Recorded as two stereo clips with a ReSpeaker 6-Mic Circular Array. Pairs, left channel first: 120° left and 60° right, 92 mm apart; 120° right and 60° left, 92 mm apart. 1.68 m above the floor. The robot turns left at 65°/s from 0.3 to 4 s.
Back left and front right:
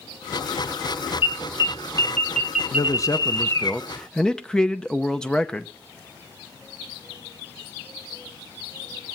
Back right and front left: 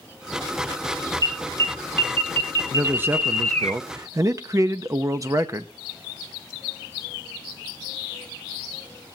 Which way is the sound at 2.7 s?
130° left.